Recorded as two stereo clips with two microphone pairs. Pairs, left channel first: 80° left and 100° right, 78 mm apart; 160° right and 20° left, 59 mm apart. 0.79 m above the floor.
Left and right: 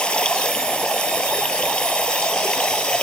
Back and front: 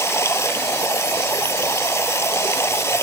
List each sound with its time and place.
0.0 s running water: 160° left